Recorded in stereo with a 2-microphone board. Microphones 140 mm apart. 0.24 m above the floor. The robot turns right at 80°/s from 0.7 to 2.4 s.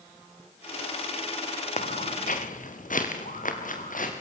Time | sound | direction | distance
1.8 | footsteps | 60° left (ahead or behind) | 2.5 m